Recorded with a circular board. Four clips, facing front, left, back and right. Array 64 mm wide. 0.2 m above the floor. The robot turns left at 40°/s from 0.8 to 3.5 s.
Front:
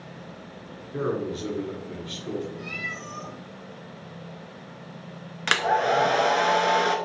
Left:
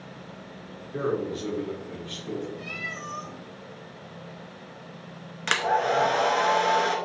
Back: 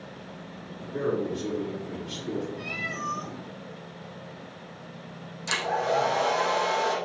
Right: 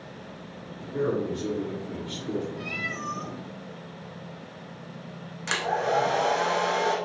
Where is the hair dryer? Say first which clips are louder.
Left 2 dB, front 4 dB; 25° left, 0.6 m.